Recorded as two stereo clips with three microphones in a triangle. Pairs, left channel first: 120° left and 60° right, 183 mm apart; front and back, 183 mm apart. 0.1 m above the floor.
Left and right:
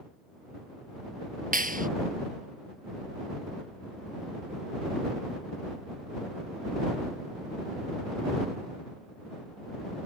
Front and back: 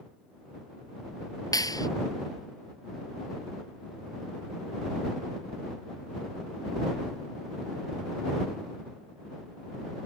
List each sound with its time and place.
1.5 s a clap: 65° right